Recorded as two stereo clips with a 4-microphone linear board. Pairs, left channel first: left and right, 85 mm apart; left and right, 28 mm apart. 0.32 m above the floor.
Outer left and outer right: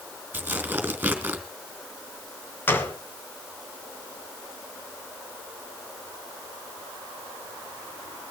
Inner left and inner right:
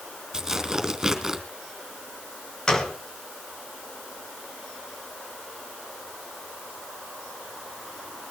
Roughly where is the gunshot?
Left.